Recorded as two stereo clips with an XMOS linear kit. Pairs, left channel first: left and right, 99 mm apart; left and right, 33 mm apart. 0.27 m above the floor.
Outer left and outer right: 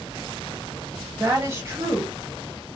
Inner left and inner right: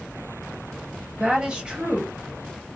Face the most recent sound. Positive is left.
turn(degrees=-30)  # may be behind; listen again after turning